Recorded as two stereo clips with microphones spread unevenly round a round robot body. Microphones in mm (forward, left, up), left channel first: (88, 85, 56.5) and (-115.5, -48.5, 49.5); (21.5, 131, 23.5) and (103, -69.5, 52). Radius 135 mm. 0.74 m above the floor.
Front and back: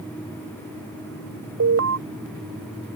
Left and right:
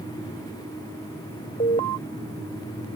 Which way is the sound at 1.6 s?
Straight behind.